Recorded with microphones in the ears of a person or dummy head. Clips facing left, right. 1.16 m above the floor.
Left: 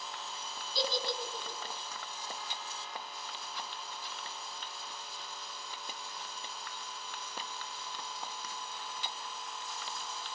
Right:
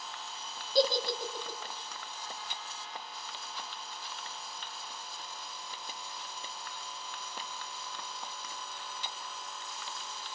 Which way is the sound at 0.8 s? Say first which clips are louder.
Right 7 dB; 40° right (ahead or behind).